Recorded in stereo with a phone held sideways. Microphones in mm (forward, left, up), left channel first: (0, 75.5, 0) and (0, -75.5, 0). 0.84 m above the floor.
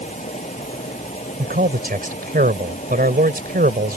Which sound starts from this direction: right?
A man speaking, at 1.4 s.